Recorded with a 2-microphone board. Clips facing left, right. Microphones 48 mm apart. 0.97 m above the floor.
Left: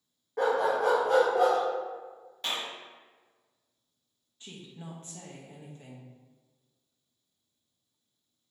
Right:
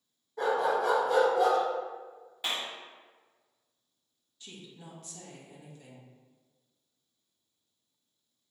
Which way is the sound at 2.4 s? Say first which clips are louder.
Even; 10° right (ahead or behind).